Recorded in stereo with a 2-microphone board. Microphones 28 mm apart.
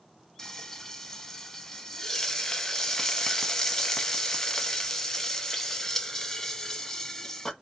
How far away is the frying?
About 0.6 m.